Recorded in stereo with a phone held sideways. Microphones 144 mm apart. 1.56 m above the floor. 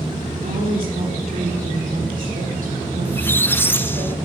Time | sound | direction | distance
0.4 | a woman speaking | 80° right | 4 m
3.0 | a squeak | 15° left (ahead or behind) | 0.5 m